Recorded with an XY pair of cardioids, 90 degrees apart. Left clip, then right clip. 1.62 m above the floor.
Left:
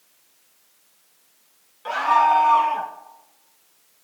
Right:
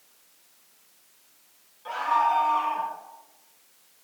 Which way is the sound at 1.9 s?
70° left.